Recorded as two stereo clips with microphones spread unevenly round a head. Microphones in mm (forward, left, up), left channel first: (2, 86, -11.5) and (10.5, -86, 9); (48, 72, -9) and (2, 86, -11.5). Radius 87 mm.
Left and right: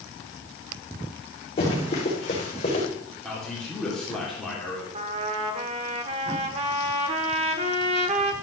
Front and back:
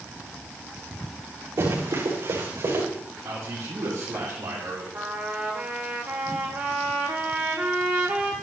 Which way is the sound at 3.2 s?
Straight behind.